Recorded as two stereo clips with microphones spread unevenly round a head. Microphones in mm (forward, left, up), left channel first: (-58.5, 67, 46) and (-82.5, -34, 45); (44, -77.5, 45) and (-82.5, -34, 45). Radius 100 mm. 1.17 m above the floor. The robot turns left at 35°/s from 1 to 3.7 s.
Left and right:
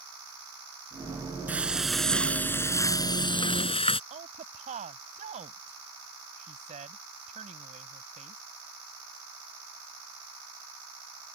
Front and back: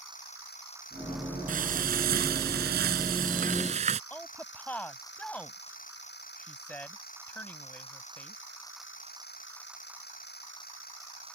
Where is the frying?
Straight behind; by 4.0 s 105° left.